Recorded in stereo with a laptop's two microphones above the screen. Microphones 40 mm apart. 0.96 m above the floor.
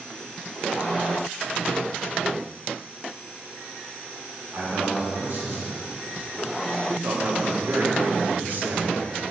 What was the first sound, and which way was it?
A man speaking, 60° right (ahead or behind).